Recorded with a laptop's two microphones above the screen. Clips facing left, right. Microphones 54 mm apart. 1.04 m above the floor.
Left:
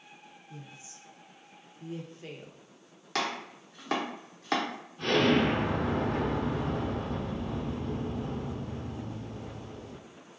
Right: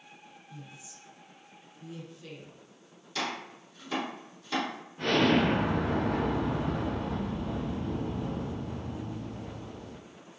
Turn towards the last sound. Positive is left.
turn(degrees=-40)  # may be behind; listen again after turning